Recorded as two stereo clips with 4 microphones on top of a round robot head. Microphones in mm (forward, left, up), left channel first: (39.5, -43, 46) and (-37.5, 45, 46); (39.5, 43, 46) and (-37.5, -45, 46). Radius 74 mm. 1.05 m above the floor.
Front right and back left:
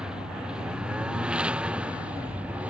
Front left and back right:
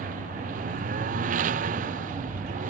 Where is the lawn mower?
145° right; by 2.7 s 150° right.